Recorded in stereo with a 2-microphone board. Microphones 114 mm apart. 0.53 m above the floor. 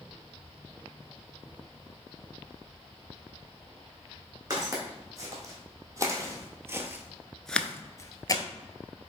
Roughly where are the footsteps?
Right.